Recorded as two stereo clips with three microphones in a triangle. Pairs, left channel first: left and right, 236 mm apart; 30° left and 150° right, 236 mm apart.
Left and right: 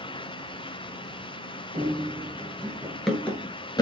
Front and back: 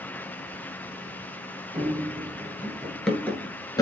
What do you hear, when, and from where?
1.7 s running footsteps: 105° right, 1.4 m; by 3.8 s 70° left, 1.3 m